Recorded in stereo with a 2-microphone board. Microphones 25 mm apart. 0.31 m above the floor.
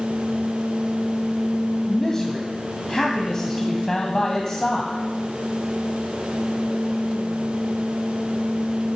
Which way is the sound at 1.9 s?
20° left (ahead or behind).